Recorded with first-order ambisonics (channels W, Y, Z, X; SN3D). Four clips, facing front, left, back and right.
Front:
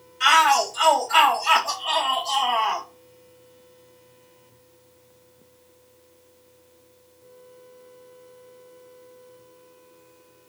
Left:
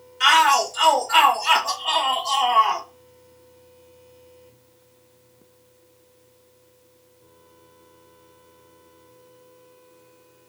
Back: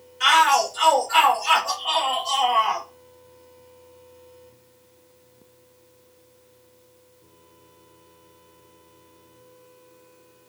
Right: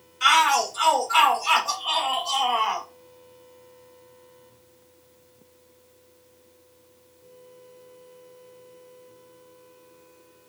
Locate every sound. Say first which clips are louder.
0.2 s a shout: left 3 dB, even; 90° left, 2.5 m